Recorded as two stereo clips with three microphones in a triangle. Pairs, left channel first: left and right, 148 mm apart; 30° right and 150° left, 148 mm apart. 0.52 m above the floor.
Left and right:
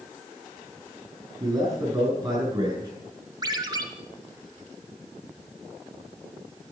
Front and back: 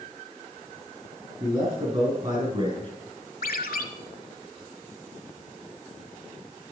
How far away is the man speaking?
About 6.5 m.